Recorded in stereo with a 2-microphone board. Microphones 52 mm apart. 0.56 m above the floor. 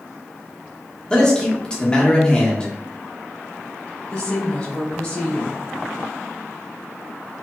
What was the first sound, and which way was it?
A man speaking, 15° left (ahead or behind).